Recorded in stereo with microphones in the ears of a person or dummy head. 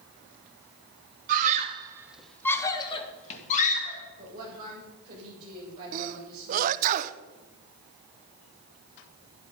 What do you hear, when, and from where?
1.3 s a scream: 45° right (ahead or behind), 1.5 m; by 4.0 s 45° left (ahead or behind), 3 m
4.2 s a woman speaking: 25° right (ahead or behind), 7 m
5.9 s a sneeze: 40° right (ahead or behind), 0.7 m